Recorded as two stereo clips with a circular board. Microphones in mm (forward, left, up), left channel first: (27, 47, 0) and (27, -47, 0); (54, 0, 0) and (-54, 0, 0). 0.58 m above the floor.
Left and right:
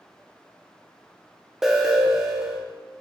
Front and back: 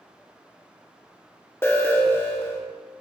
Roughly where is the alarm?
Ahead.